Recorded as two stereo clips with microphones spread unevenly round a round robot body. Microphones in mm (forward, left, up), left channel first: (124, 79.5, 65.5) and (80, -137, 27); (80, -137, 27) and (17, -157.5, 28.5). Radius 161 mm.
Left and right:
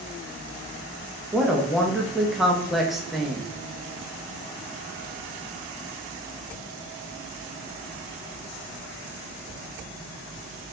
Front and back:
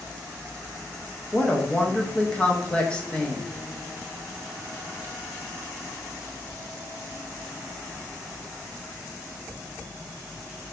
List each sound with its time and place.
1.3 s a woman speaking: 35° right, 0.9 m